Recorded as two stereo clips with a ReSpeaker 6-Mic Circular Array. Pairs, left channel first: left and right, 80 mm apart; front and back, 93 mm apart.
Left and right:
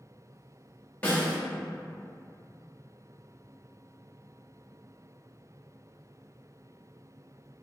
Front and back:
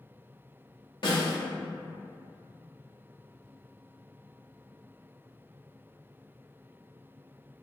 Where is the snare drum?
20° left, 0.9 m.